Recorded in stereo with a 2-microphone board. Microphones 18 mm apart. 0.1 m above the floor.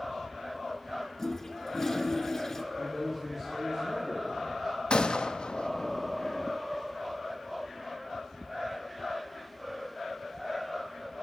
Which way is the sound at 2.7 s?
25° right (ahead or behind).